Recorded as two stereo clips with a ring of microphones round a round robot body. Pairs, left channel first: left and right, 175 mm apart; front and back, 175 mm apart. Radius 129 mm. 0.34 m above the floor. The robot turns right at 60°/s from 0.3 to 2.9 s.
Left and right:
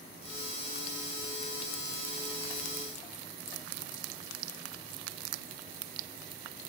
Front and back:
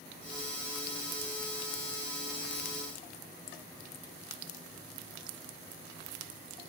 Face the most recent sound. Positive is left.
No sound to turn to.